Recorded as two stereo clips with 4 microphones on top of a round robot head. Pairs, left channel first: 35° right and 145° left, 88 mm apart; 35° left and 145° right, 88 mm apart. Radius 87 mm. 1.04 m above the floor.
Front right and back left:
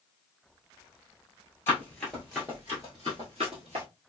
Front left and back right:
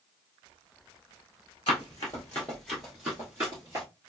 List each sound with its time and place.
1.7 s running footsteps: 20° left, 1.1 m; by 3.9 s 165° left, 1.2 m